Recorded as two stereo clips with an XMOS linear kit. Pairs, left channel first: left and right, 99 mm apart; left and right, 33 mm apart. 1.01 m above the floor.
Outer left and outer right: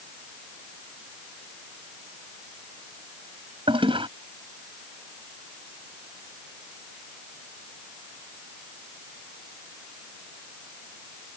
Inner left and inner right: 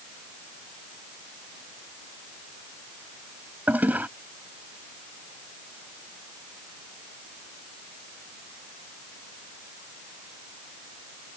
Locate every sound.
3.7 s a toilet flushing: 55° right (ahead or behind)